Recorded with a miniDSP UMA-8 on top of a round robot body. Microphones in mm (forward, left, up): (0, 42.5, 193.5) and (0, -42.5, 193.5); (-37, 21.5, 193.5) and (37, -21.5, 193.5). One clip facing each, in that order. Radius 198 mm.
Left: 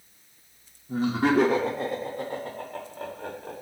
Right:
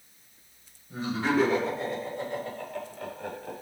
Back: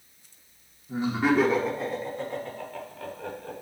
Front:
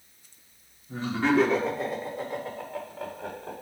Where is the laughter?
80° left, 2.0 m; by 3.5 s 35° left, 3 m.